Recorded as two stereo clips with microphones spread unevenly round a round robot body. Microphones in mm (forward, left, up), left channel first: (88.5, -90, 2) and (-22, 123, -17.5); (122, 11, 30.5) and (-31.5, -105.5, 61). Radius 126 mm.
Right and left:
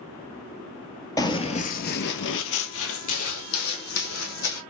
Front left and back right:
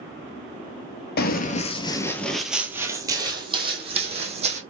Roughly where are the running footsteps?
Ahead.